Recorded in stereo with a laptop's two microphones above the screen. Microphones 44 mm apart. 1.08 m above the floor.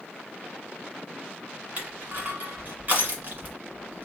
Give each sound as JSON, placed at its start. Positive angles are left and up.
{"t": 1.8, "sound": "crushing", "side_deg": -35, "distance_m": 1.4}